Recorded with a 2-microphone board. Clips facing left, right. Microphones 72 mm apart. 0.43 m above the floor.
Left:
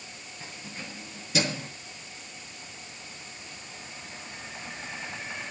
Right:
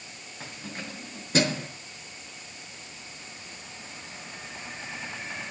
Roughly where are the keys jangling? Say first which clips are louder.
Right 3 dB; right.